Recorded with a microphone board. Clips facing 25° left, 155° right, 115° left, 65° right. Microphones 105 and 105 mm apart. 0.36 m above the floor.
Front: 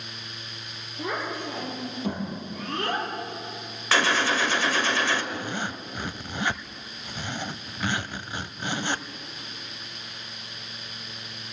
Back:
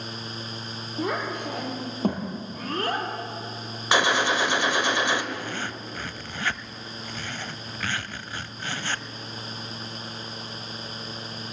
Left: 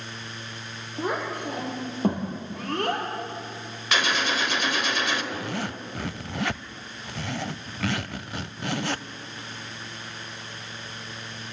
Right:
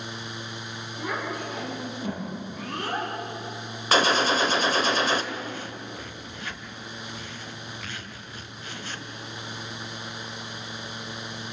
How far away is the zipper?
About 0.7 m.